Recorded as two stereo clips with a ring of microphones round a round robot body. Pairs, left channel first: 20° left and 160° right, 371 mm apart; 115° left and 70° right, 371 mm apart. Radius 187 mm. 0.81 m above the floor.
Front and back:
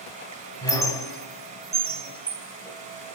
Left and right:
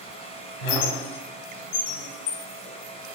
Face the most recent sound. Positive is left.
turn(degrees=105)